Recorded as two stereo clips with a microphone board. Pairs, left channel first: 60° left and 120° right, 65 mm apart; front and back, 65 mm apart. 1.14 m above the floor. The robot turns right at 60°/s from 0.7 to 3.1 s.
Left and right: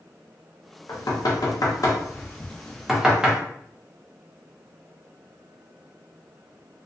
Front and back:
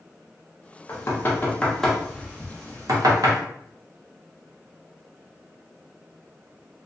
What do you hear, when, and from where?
0.9 s knocking: 30° left, 0.7 m; by 3.4 s 165° left, 0.7 m